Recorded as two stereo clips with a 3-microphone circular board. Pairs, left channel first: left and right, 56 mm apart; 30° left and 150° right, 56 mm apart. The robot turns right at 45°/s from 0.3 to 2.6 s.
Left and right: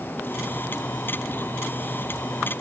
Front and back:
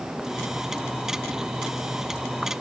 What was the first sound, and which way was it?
Only background noise.